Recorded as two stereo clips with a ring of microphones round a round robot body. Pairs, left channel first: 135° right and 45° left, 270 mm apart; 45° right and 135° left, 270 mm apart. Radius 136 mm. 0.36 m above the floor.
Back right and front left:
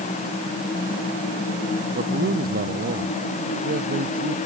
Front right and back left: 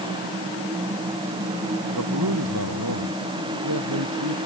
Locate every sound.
1.9 s a man speaking: 105° left